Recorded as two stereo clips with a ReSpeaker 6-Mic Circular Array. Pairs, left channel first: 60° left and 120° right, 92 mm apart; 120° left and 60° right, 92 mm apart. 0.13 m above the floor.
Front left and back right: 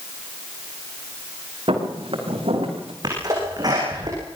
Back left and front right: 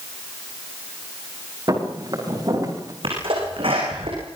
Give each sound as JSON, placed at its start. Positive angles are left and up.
{"t": 1.7, "sound": "footsteps", "azimuth_deg": -105, "distance_m": 9.0}
{"t": 3.0, "sound": "a sneeze", "azimuth_deg": -75, "distance_m": 8.0}